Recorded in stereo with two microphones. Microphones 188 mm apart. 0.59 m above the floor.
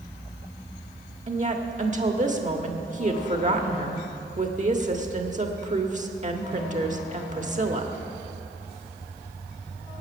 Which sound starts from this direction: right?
A woman speaking, at 1.3 s.